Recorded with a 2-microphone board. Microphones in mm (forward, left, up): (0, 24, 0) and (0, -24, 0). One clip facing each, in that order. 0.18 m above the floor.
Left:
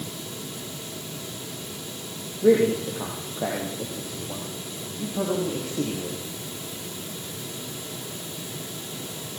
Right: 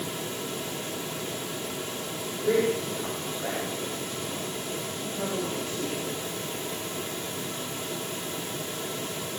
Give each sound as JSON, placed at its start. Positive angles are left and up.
{"t": 2.4, "sound": "a man speaking", "side_deg": 80, "distance_m": 6.5}